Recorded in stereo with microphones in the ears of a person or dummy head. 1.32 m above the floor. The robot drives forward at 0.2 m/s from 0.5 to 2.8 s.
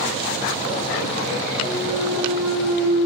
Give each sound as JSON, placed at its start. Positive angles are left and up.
{"t": 1.6, "sound": "a clunk", "side_deg": -10, "distance_m": 1.0}